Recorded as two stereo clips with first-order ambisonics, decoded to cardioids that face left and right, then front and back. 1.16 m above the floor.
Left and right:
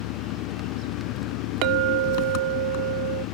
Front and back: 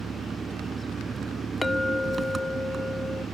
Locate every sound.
0.0 s an engine running: 105° left
1.6 s a clink: 80° right